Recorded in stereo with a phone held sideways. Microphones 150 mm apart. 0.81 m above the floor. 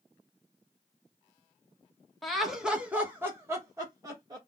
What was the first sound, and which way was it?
Laughter, centre (ahead or behind).